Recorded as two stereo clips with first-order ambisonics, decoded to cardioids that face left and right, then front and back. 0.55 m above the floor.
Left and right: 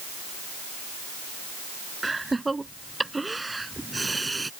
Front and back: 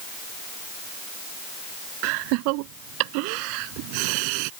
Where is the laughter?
170° right.